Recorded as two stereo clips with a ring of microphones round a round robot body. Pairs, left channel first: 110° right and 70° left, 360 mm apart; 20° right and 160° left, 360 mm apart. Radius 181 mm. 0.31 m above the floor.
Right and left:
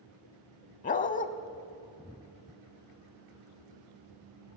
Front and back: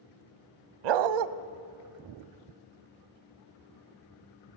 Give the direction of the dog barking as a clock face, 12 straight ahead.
6 o'clock.